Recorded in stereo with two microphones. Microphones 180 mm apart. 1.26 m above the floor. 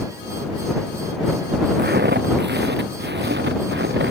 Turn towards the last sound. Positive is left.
turn(degrees=-75)  # may be behind; listen again after turning